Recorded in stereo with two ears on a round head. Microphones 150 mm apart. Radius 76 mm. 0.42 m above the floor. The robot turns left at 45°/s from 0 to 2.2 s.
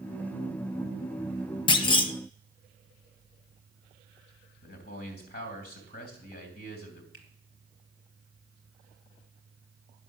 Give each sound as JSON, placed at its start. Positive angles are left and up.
{"t": 1.7, "sound": "a clunk", "side_deg": 30, "distance_m": 0.6}
{"t": 4.6, "sound": "a man speaking", "side_deg": 60, "distance_m": 3.0}
{"t": 7.1, "sound": "a finger snap", "side_deg": 55, "distance_m": 2.5}